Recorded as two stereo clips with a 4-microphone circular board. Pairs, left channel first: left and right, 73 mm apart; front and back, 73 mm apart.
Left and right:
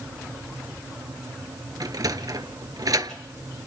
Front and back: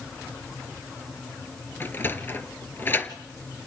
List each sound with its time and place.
1.8 s a sliding door: 60° right, 1.1 m